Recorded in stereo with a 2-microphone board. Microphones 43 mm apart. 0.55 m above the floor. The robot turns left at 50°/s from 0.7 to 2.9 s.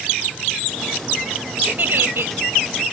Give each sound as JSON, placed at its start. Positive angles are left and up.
{"t": 1.7, "sound": "a giggle", "azimuth_deg": -40}